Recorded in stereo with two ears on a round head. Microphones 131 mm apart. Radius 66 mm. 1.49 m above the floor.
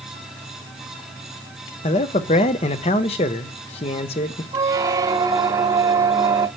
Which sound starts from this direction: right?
A squeak, at 4.5 s.